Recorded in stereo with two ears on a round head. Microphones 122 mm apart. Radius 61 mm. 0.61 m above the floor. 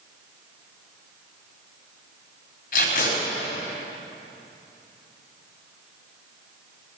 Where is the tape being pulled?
70° left (ahead or behind), 4 m.